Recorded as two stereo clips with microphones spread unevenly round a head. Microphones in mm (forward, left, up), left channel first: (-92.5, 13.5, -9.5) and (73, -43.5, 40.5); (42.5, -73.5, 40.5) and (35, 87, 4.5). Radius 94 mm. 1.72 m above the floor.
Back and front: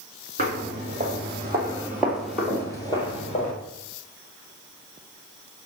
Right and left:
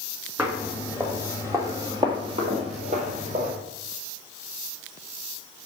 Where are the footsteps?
Straight ahead, 3 m; by 3.5 s 115° left, 1.9 m.